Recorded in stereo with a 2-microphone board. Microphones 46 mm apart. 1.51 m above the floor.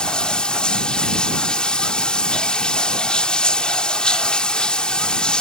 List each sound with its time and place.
0.0 s running water: 20° left (ahead or behind)